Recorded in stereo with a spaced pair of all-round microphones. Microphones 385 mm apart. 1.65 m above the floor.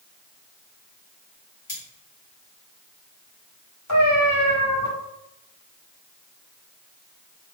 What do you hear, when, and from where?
1.7 s cutlery clinking: 55° left (ahead or behind), 1.6 m
3.9 s a cat meowing: 45° left (ahead or behind), 1.8 m